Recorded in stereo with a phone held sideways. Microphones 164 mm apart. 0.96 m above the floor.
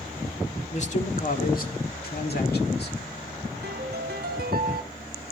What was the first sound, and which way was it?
A man speaking, 45° left (ahead or behind).